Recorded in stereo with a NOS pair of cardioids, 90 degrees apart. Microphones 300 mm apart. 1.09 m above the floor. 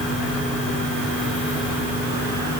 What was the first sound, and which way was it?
Only background noise.